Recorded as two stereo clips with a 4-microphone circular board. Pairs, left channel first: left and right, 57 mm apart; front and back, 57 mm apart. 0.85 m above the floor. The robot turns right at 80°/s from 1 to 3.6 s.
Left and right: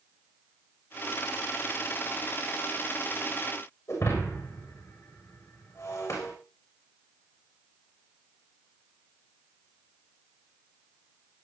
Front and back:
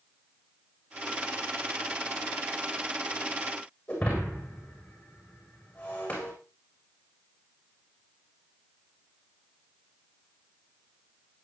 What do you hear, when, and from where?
3.9 s breaking glass: 70° left, 7 m